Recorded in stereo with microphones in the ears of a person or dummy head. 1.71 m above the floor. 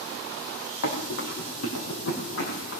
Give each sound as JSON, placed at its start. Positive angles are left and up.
{"t": 0.8, "sound": "running footsteps", "side_deg": 60, "distance_m": 4.0}